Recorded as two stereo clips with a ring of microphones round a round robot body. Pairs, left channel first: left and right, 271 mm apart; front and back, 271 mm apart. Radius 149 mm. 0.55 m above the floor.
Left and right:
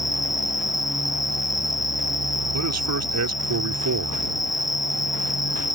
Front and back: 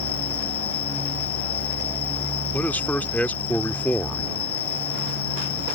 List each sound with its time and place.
0.0 s an insect: straight ahead
2.5 s a man speaking: 85° right